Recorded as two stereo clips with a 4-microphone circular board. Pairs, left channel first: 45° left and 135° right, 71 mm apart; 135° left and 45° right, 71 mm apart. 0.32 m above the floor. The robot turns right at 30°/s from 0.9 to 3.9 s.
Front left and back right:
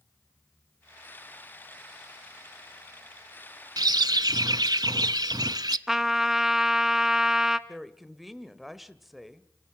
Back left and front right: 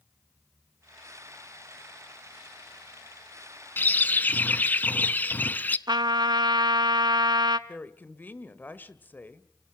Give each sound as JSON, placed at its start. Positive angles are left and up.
{"t": 3.8, "sound": "a bird", "azimuth_deg": -165, "distance_m": 0.6}
{"t": 5.9, "sound": "a trumpet", "azimuth_deg": -55, "distance_m": 0.7}
{"t": 7.7, "sound": "a woman speaking", "azimuth_deg": 135, "distance_m": 1.1}